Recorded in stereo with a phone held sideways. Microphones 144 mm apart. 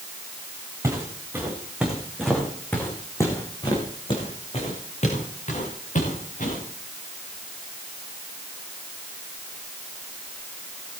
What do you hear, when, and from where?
0.8 s footsteps: 20° right (ahead or behind), 5 m; by 6.6 s 65° left (ahead or behind), 6.5 m